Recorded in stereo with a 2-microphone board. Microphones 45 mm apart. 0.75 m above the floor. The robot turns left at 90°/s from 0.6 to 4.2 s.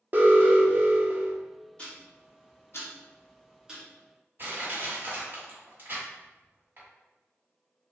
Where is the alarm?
60° right, 0.7 m; by 1.4 s 130° right, 0.7 m.